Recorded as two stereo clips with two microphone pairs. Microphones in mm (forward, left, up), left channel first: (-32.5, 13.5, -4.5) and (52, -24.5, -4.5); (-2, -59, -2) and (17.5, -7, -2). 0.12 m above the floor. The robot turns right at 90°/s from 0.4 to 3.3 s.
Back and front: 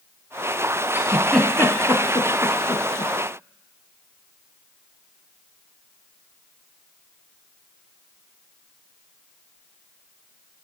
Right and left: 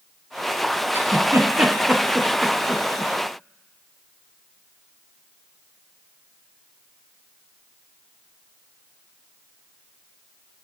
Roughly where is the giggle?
Ahead left.